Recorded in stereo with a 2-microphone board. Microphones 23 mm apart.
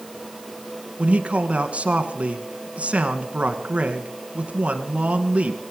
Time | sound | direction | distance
1.0 | a man speaking | 55° right (ahead or behind) | 2 m